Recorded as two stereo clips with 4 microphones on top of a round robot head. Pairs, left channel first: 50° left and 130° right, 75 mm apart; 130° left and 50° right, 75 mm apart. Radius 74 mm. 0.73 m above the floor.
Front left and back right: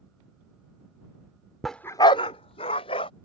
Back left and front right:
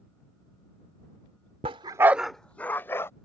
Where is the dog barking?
40° right; by 3.1 s 65° left.